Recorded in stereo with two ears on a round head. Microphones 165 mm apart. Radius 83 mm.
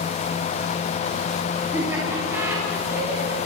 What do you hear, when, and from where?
1.7 s laughter: 15° right (ahead or behind), 6.5 m